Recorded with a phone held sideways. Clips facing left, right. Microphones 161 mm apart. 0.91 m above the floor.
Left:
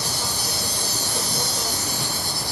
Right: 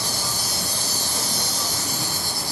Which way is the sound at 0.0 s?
60° left (ahead or behind).